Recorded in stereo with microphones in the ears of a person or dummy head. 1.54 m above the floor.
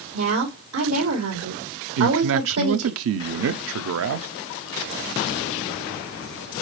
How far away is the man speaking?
About 0.6 m.